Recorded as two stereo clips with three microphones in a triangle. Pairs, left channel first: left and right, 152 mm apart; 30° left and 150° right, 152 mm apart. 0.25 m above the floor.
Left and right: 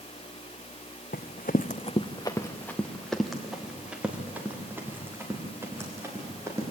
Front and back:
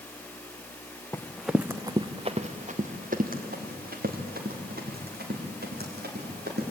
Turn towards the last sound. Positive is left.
turn(degrees=-165)